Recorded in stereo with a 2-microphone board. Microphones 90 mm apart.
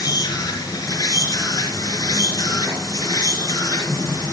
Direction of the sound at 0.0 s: 40° left (ahead or behind).